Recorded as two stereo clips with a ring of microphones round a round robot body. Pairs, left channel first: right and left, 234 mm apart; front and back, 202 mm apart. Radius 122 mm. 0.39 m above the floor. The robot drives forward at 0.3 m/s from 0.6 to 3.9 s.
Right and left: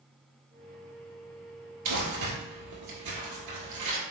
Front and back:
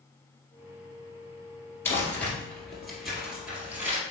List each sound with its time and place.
1.9 s crumpling: 80° left, 1.7 m; by 4.0 s 100° left, 1.7 m